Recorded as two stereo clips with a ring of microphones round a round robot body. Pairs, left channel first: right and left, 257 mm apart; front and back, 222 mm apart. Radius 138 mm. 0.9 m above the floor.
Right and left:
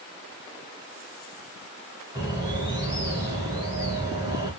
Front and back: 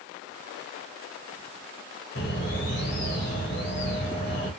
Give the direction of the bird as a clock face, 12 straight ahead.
11 o'clock.